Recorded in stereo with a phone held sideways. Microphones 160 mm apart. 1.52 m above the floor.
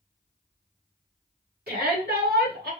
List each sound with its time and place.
1.7 s a shout: 75° right (ahead or behind), 3 m; by 2.7 s 85° right, 2 m